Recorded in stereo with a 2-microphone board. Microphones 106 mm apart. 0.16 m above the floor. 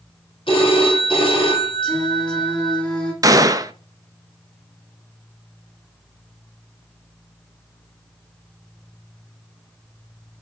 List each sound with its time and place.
0.5 s a phone ringing: 55° left (ahead or behind), 3 m
1.8 s singing: 10° left (ahead or behind), 2 m
3.2 s a gunshot: 35° right (ahead or behind), 0.5 m